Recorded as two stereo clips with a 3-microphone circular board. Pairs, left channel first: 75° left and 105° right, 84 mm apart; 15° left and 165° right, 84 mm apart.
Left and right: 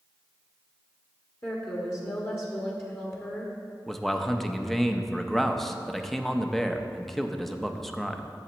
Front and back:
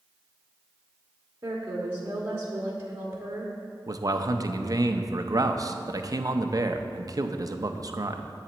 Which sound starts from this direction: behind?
A man speaking, at 3.9 s.